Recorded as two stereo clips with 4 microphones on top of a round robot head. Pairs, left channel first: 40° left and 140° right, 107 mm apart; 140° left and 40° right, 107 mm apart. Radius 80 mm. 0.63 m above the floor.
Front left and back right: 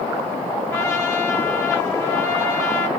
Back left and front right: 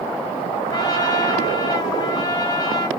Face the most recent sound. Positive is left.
turn(degrees=100)